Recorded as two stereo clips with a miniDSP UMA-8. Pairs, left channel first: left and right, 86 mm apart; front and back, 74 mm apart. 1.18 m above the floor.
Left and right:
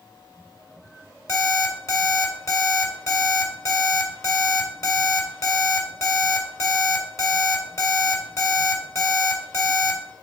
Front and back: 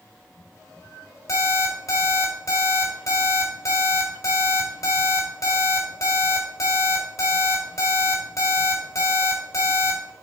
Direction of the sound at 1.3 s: 35° left.